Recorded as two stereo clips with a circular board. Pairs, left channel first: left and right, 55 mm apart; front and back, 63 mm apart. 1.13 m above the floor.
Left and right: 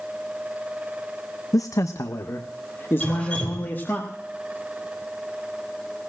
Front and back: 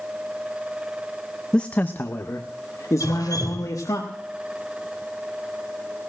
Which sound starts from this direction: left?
A man speaking, at 1.5 s.